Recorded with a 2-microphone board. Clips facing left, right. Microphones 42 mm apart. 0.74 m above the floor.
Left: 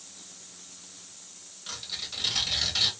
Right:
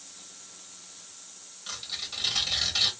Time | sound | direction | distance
1.7 | tearing paper | 5° left (ahead or behind) | 1.1 m